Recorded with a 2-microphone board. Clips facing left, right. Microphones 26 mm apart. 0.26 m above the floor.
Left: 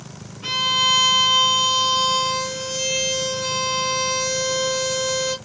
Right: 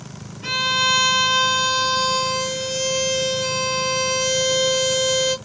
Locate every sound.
0.4 s a violin: 5° left (ahead or behind), 1.6 m